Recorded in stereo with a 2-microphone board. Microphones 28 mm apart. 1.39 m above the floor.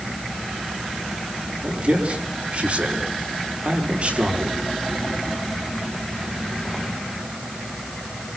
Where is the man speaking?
50° right (ahead or behind), 5 m.